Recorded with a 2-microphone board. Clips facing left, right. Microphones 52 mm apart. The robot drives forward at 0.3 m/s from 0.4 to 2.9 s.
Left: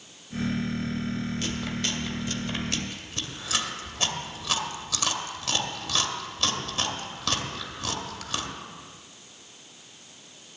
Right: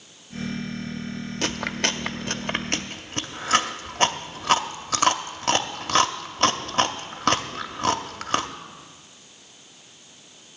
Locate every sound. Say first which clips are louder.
1.4 s chewing: right 4 dB; 80° right, 0.5 m; by 8.5 s 45° right (ahead or behind), 0.7 m